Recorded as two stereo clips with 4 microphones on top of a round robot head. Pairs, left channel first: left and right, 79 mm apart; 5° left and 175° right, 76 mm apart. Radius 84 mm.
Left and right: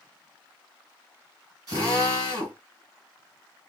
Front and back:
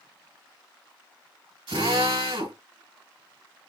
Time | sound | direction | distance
1.7 | a drill | 145° right | 2.5 m